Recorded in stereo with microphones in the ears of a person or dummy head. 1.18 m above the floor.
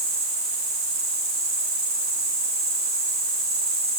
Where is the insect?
35° right (ahead or behind), 1.8 m.